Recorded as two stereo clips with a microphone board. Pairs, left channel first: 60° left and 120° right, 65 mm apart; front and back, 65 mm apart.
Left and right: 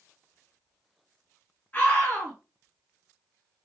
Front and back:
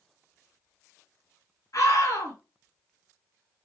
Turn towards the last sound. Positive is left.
turn(degrees=5)